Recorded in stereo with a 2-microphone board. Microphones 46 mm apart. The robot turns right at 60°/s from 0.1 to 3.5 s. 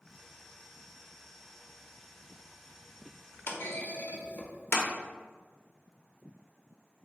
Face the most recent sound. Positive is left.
turn(degrees=55)  # may be behind; listen again after turning